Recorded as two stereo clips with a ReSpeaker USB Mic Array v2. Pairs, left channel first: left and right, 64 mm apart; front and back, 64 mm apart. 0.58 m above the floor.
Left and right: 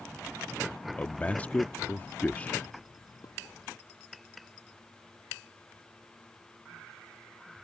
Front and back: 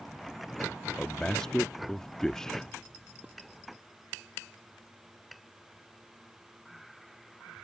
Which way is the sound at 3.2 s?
110° left.